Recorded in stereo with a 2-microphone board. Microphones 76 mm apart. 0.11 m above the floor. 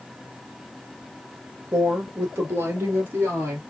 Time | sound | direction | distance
1.7 | a woman speaking | 35° right (ahead or behind) | 1.6 m